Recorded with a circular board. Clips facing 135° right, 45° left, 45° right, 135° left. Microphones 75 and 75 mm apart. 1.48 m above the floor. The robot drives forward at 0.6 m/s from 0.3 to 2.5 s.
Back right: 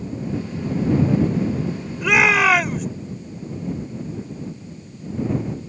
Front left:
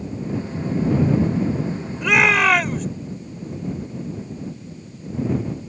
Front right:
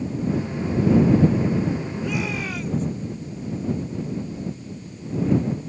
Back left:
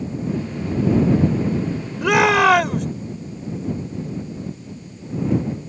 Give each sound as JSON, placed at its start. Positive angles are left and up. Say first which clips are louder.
{"t": 2.0, "sound": "a shout", "louder": "even, back left 12 dB", "azimuth_deg": 140}